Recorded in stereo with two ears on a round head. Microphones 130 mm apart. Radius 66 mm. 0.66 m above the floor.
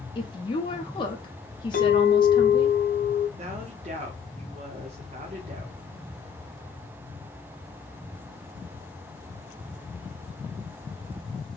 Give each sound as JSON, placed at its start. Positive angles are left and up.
{"t": 0.1, "sound": "a woman speaking", "side_deg": 30, "distance_m": 0.7}
{"t": 1.7, "sound": "a clink", "side_deg": 65, "distance_m": 1.2}
{"t": 3.4, "sound": "a woman speaking", "side_deg": -45, "distance_m": 1.0}